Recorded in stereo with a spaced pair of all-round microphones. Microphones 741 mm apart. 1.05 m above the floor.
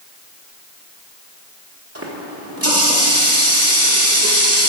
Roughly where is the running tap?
Centre.